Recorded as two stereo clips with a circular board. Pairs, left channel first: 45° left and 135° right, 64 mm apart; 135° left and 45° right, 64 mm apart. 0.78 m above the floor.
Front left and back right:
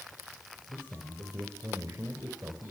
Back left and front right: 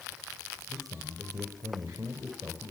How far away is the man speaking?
About 3.5 m.